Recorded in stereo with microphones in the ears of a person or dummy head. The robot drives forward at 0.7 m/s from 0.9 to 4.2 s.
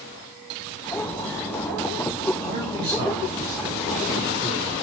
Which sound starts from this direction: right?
A man speaking, at 2.4 s.